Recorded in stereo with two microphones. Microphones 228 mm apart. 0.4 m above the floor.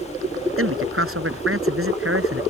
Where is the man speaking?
70° right (ahead or behind).